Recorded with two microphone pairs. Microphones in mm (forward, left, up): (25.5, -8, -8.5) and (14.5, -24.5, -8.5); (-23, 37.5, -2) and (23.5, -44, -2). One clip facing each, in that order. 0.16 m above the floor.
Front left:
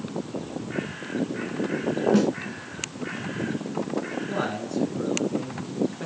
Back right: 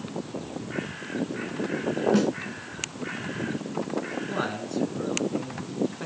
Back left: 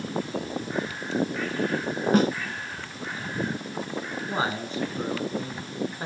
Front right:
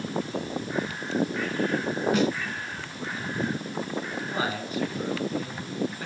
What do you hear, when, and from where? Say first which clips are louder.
2.1 s a snare drum: front left 2 dB, back left 4 dB; 150° left, 0.6 m
4.3 s a man speaking: front left 2 dB, back left 2 dB; 160° left, 2 m